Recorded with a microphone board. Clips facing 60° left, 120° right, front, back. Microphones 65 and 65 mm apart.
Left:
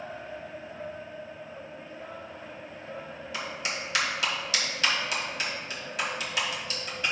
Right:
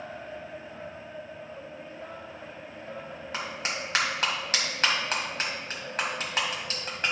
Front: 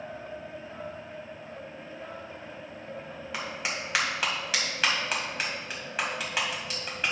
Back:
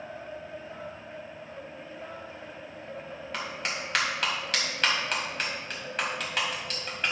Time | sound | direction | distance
3.3 | a clap | 85° right | 2.0 m